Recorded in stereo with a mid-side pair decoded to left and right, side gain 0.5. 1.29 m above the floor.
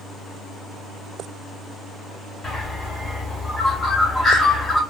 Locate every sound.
2.4 s a bird: 35° left, 2 m